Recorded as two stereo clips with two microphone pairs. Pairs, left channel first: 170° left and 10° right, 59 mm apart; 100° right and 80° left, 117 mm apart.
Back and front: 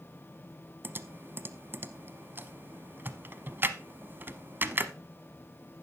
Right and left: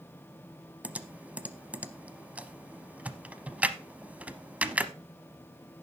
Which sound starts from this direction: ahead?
Typing on a keyboard, at 0.8 s.